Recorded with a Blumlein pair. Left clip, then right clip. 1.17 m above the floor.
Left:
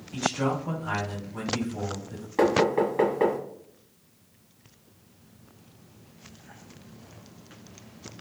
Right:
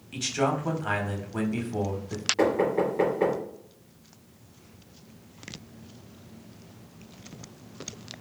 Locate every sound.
0.1 s a man speaking: 35° right, 1.1 m
2.4 s knocking: 70° left, 1.4 m